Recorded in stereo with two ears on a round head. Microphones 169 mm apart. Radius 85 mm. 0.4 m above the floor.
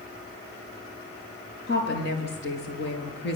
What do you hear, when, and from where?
1.7 s a woman speaking: 60° left (ahead or behind), 8 m